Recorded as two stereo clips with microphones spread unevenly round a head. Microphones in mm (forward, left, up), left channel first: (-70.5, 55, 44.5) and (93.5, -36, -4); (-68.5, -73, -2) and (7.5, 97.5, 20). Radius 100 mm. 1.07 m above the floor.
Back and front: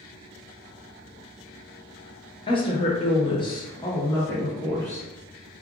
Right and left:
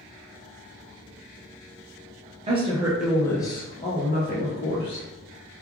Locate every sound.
2.5 s a woman speaking: 85° left, 0.6 m; by 5.0 s 125° right, 1.3 m